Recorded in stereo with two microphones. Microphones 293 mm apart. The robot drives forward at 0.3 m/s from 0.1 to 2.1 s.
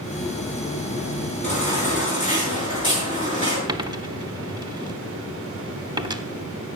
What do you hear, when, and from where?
1.4 s a baby crying: 20° left (ahead or behind), 7.5 m
3.7 s a dropped coin: 15° right (ahead or behind), 0.8 m